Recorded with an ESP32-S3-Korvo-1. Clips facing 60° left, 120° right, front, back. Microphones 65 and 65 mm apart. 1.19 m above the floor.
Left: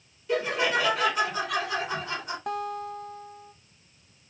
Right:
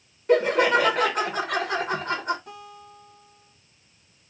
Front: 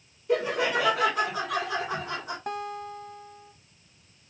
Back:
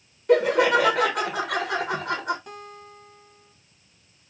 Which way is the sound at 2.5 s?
40° left.